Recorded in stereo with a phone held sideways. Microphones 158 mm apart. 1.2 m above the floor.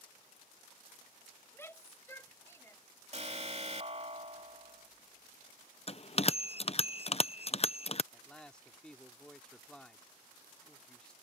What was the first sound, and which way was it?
A shout, 15° left (ahead or behind).